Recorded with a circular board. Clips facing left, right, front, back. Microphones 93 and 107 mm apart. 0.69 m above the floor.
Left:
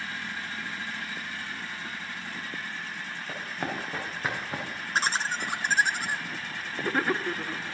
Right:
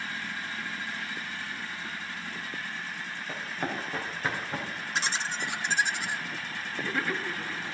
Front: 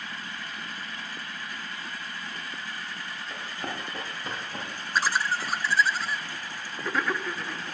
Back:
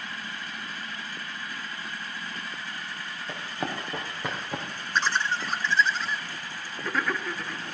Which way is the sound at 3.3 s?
170° left.